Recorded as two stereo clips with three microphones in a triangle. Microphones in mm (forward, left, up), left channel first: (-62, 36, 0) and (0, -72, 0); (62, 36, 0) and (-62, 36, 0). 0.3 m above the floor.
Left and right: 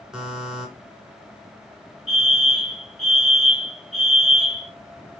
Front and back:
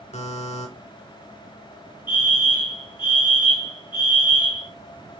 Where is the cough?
No cough in this recording.